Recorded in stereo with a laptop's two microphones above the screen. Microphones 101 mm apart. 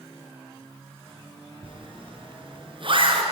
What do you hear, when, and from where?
1.6 s a zipper: 55° right (ahead or behind), 5 m